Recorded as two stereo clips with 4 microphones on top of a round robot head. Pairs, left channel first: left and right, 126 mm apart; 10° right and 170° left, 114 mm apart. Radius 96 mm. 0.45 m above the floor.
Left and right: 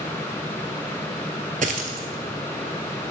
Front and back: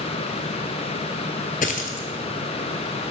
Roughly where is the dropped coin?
Ahead right.